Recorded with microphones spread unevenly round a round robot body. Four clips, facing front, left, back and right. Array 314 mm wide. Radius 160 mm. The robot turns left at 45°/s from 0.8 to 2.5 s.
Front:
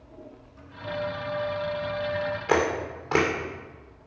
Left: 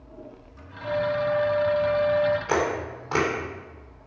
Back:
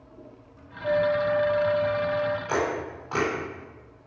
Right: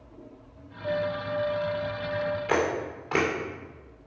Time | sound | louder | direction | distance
0.8 | a flute | left 5 dB, back 8 dB | 175° left | 0.8 m
2.5 | a camera shutter | left 1 dB, front 3 dB | 10° left | 2.5 m